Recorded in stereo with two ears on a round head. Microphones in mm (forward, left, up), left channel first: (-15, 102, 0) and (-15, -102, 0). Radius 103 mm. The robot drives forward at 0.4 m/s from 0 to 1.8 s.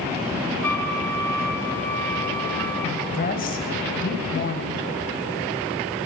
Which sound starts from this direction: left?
A woman speaking, at 3.1 s.